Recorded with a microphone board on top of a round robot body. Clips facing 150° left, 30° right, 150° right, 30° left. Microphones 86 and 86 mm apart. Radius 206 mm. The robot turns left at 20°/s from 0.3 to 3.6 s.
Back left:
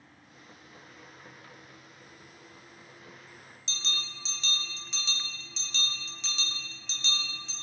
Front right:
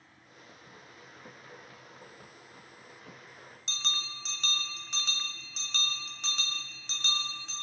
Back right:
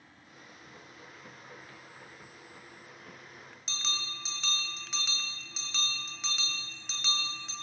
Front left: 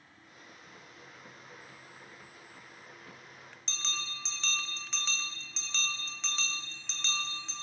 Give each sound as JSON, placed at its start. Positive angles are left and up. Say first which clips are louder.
{"t": 3.7, "sound": "a bell", "louder": "front right 1 dB, back right 1 dB", "azimuth_deg": -65, "distance_m": 2.0}